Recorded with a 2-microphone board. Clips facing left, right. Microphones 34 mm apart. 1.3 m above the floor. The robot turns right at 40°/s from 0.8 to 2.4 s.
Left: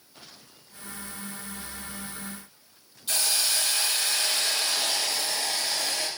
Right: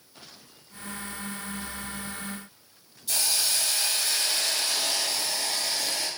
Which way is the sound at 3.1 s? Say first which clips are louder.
Left 1 dB; 45° left (ahead or behind).